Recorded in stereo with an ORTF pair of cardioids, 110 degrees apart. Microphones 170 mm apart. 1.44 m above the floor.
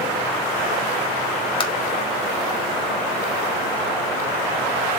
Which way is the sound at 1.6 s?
30° left.